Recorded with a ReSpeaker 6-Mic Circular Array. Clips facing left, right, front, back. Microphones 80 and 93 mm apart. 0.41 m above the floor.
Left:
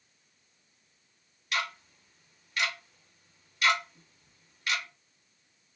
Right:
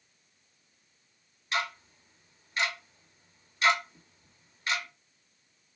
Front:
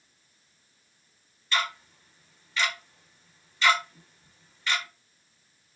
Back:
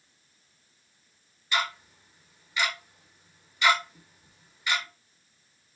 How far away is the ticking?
About 0.7 m.